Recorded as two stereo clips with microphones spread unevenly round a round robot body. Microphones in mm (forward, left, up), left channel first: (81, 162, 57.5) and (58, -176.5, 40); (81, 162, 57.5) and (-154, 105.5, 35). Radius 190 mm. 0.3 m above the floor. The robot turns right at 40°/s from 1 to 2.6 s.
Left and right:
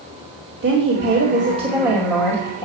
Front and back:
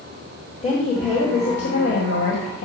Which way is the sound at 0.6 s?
50° right.